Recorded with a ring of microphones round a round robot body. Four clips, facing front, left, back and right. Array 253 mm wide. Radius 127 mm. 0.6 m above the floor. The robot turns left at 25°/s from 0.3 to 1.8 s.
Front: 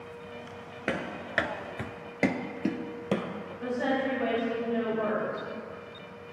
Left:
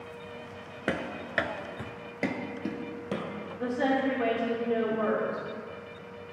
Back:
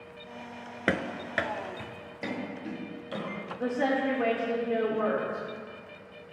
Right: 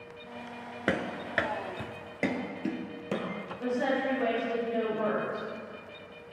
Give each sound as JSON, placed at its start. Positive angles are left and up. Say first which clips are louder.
{"t": 0.9, "sound": "running footsteps", "louder": "right 1 dB, back 3 dB", "azimuth_deg": -165, "distance_m": 0.5}
{"t": 3.6, "sound": "a woman speaking", "louder": "left 2 dB, back 1 dB", "azimuth_deg": 145, "distance_m": 1.6}